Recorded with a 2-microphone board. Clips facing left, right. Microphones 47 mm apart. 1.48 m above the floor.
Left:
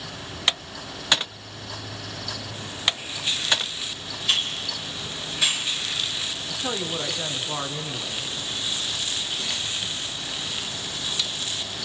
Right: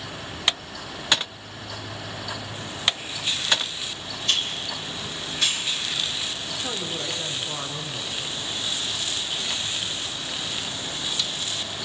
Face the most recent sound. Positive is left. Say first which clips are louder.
# left 5 dB
turn(degrees=20)  # may be behind; listen again after turning